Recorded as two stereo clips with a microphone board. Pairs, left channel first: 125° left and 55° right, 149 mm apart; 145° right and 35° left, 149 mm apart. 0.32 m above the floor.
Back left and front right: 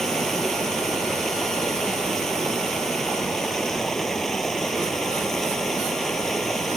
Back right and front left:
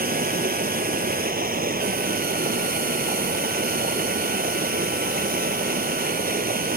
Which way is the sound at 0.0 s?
35° left.